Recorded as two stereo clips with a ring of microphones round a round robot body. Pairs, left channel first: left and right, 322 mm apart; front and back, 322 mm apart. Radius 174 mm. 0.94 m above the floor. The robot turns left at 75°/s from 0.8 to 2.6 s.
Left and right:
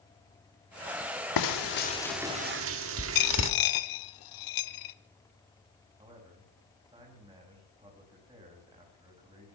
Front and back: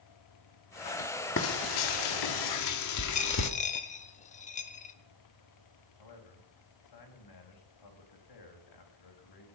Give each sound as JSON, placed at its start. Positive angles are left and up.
{"t": 1.4, "sound": "frying", "azimuth_deg": 60, "distance_m": 1.8}
{"t": 3.1, "sound": "a dropped coin", "azimuth_deg": 70, "distance_m": 1.0}
{"t": 6.0, "sound": "a man speaking", "azimuth_deg": -10, "distance_m": 6.0}